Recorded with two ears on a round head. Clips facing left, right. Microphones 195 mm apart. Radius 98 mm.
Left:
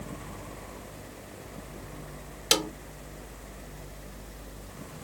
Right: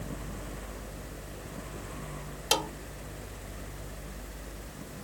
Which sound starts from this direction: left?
A snare drum, at 2.5 s.